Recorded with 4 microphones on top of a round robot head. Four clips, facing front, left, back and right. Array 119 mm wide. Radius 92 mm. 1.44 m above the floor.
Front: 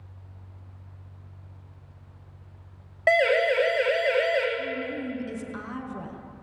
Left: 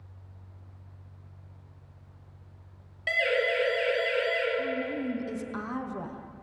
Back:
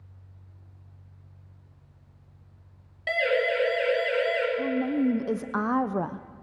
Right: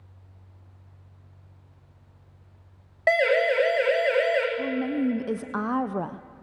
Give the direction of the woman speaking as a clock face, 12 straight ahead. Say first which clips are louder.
Right 5 dB, back 6 dB; 5 o'clock.